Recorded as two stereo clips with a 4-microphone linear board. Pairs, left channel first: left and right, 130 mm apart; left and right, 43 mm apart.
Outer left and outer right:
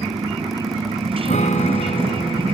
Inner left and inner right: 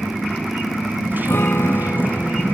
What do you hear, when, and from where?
0.0 s a motorcycle: 45° right (ahead or behind)
1.2 s a guitar: 65° left (ahead or behind)